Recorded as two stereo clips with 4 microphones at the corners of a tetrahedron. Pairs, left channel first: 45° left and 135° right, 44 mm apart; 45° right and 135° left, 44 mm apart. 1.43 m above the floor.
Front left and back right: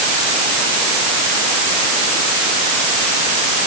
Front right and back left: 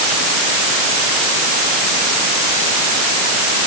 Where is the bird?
I don't hear a bird.